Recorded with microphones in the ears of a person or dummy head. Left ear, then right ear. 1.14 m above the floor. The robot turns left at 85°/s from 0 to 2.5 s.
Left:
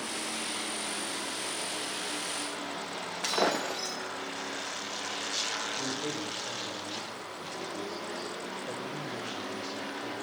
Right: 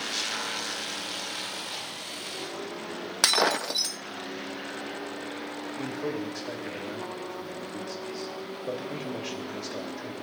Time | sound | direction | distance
3.2 | breaking glass | 70° right (ahead or behind) | 0.6 m
5.8 | a man speaking | 40° right (ahead or behind) | 2.5 m